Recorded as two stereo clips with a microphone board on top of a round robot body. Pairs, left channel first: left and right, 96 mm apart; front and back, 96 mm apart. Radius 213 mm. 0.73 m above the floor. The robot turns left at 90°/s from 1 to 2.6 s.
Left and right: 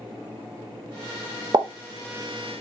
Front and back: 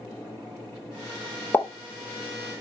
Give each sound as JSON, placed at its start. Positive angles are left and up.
{"t": 1.5, "sound": "a pop", "azimuth_deg": -65, "distance_m": 0.9}